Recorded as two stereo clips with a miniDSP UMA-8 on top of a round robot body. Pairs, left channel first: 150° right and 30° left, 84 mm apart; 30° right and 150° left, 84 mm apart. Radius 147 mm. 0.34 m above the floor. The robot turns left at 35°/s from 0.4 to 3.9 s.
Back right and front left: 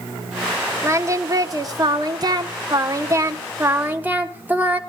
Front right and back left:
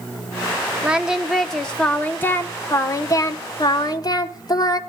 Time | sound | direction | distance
0.8 | singing | 75° left | 1.3 m